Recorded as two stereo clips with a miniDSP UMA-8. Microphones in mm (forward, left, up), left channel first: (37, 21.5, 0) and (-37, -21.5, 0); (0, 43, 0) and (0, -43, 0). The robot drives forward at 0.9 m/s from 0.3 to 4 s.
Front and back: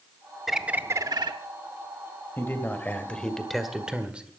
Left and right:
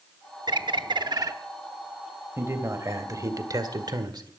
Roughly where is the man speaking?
Ahead right.